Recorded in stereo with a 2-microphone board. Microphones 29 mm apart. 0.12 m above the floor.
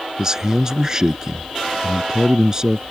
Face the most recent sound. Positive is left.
turn(degrees=-20)  # may be behind; listen again after turning